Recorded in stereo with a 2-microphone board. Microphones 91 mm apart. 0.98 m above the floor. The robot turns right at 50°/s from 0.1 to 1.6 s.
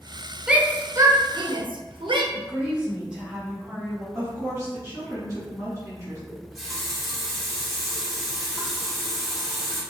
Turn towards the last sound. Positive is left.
turn(degrees=0)  # may be behind; listen again after turning